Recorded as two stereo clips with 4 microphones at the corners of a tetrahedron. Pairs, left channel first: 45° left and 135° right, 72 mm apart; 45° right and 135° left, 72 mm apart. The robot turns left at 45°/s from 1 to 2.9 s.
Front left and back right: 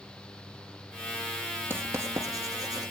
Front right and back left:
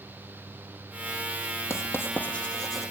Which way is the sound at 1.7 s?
80° right.